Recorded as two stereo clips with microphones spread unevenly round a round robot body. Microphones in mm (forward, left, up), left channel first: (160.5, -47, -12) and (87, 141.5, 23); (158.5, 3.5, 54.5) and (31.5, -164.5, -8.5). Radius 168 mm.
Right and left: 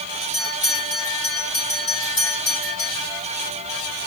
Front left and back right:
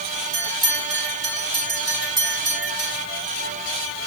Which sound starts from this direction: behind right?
A bell, at 0.3 s.